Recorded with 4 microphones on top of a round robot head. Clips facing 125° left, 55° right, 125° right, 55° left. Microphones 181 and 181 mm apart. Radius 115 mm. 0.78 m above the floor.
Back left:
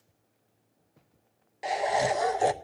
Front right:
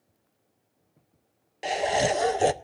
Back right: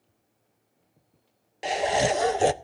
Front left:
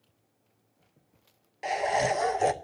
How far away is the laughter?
About 0.6 m.